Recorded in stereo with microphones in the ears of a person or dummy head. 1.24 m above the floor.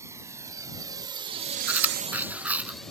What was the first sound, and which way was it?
A drone, 20° right (ahead or behind).